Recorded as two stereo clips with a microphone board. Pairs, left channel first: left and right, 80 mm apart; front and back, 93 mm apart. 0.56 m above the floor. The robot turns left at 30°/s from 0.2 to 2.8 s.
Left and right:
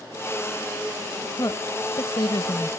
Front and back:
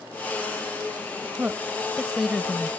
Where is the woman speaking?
115° left; by 2.7 s 80° left.